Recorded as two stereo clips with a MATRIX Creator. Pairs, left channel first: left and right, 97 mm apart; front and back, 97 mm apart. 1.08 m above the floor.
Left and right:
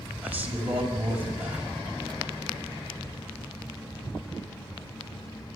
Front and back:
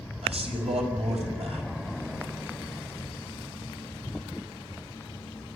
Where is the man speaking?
165° right, 5.5 m.